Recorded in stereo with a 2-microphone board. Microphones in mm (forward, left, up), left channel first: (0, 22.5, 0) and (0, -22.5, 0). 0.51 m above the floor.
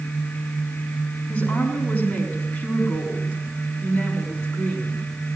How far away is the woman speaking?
About 5 m.